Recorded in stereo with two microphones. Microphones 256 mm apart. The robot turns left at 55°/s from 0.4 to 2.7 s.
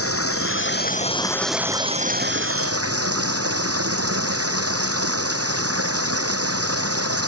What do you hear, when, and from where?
0.0 s running water: 60° left; by 7.3 s 65° right